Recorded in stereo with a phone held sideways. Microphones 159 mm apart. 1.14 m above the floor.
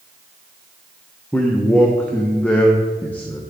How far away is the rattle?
No rattle in this recording.